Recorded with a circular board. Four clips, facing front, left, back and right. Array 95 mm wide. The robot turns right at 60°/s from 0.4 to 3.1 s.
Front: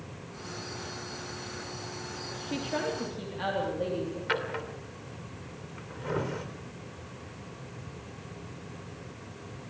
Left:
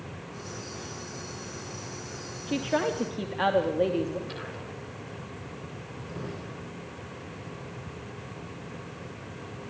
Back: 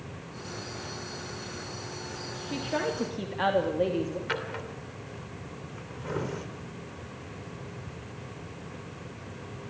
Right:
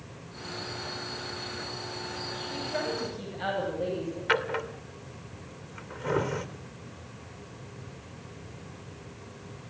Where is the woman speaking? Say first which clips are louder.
Left 6 dB, back 1 dB; 85° left, 2.5 m; by 4.2 s 125° left, 2.5 m.